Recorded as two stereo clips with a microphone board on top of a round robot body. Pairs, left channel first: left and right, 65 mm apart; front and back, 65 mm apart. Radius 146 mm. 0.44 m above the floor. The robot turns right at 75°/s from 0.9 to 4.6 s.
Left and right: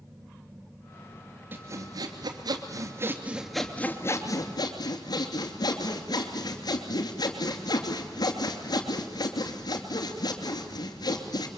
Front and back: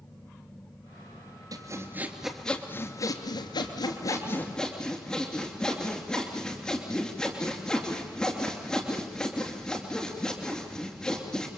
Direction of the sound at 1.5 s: 150° right.